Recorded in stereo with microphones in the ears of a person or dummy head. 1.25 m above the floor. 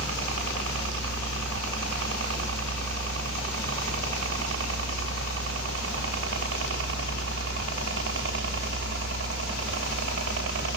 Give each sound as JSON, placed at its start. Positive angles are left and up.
{"t": 0.0, "sound": "a helicopter", "side_deg": -75}